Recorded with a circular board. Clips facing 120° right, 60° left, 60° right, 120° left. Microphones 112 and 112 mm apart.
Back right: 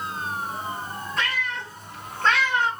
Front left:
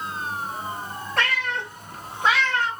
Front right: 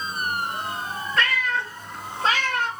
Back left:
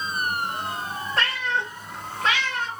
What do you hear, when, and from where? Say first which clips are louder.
1.2 s a cat meowing: front left 4 dB, front right 1 dB; 65° left, 1.6 m; by 2.7 s 60° right, 0.9 m